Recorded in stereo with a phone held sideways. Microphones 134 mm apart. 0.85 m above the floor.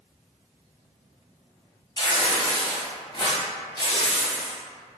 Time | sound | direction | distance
2.0 | tearing paper | 30° left (ahead or behind) | 1.1 m